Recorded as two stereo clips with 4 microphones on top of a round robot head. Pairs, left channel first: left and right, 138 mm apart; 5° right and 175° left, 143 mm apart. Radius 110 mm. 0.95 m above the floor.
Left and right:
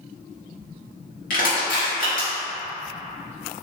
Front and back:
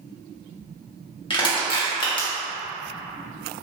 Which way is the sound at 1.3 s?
50° left.